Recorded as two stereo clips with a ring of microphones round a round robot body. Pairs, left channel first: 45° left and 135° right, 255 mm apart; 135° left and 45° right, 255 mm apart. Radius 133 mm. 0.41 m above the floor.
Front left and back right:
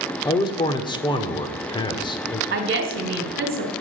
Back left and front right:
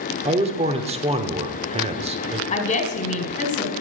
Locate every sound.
0.2 s a man speaking: 10° right, 1.0 m
2.5 s a woman speaking: 170° right, 1.6 m